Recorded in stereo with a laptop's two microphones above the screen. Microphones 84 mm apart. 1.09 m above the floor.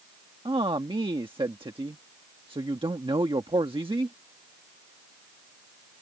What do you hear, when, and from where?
0.5 s a man speaking: 90° right